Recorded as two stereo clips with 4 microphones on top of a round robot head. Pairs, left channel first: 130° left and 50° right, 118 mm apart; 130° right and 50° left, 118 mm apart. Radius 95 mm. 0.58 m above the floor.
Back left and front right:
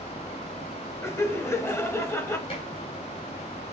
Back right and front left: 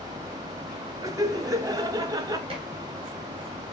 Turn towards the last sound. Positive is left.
turn(degrees=95)